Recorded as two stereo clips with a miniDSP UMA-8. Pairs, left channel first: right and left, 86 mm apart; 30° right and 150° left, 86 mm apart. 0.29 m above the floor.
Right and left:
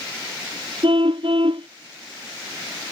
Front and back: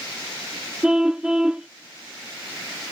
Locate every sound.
0.8 s a car horn: 70° left